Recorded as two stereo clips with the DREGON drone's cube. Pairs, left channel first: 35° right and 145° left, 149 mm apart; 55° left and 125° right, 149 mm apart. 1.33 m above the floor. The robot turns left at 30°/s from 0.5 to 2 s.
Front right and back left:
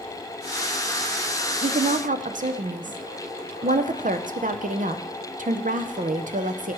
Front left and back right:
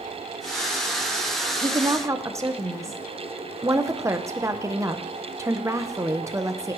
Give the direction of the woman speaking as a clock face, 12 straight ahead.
6 o'clock.